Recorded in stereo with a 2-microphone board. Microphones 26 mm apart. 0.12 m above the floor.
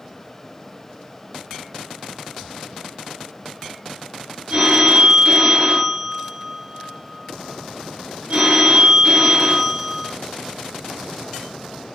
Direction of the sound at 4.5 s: 45° right (ahead or behind).